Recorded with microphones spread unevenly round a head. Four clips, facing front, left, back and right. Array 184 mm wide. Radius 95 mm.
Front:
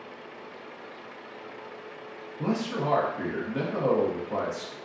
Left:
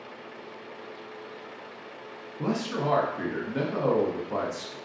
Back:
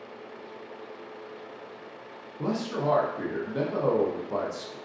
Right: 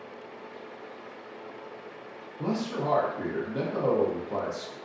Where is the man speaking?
160° right, 0.5 m.